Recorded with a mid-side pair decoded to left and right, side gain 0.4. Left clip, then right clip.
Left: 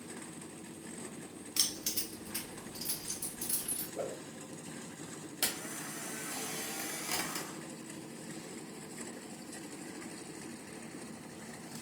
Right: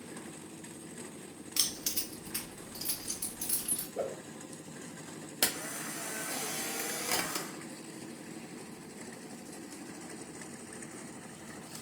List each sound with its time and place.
1.6 s keys jangling: 25° right, 1.3 m; by 3.9 s 70° right, 2.5 m
4.0 s a whoosh: 60° right, 2.0 m
5.4 s a camera shutter: 60° right, 0.7 m